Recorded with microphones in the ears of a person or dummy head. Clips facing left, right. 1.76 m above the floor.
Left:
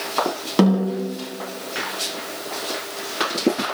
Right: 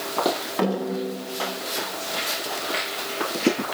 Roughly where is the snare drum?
Left.